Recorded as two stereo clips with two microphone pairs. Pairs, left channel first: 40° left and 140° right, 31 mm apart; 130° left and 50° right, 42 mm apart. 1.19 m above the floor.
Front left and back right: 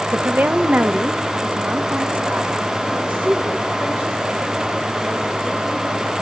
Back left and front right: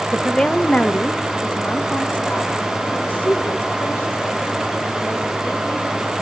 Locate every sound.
0.1 s a woman speaking: 150° right, 1.1 m; by 6.1 s 175° right, 8.5 m